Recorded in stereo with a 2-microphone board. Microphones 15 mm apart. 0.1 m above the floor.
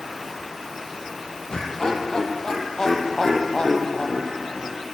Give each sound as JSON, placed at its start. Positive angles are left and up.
{"t": 1.5, "sound": "laughter", "side_deg": 45, "distance_m": 3.5}